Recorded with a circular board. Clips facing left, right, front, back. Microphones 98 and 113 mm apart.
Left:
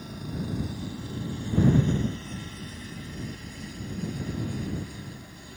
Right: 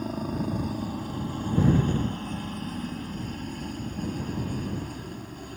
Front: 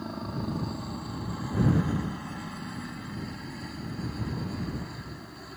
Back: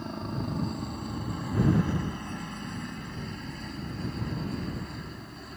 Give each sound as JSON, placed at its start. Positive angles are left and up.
{"t": 0.0, "sound": "a helicopter", "azimuth_deg": -85}